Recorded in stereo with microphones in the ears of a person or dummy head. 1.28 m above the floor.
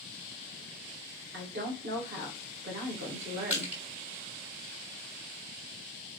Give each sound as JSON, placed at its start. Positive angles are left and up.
{"t": 1.3, "sound": "a woman speaking", "side_deg": -55, "distance_m": 1.5}
{"t": 3.5, "sound": "crushing", "side_deg": -5, "distance_m": 1.6}